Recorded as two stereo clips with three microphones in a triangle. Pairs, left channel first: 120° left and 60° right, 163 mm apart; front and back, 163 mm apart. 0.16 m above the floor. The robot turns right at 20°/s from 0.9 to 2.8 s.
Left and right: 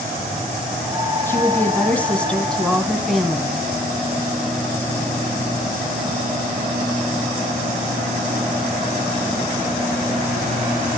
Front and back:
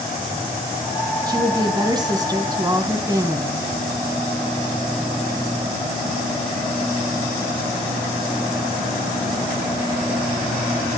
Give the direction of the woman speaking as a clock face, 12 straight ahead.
6 o'clock.